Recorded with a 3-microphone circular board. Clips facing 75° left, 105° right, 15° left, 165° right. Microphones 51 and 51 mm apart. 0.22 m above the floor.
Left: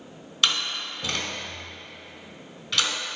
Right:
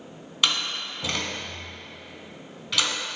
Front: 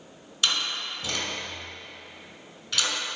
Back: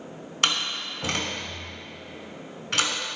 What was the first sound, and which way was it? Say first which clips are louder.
A door slam: even, back 2 dB; 175° left.